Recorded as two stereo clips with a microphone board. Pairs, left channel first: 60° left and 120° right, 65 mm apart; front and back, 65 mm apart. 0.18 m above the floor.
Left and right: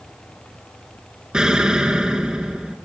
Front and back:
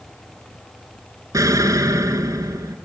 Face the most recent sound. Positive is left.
turn(degrees=160)